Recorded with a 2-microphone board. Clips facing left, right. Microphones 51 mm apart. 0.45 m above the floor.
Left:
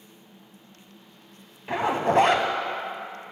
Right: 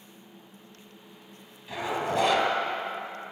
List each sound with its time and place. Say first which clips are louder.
1.7 s a zipper: left 6 dB; 50° left (ahead or behind), 0.5 m